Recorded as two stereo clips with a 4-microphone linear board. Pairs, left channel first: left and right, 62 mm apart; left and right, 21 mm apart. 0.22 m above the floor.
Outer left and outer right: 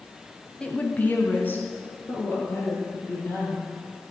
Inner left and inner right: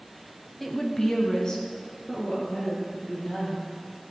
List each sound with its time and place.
0.6 s a woman speaking: 15° left (ahead or behind), 1.0 m; by 3.6 s 35° left (ahead or behind), 5 m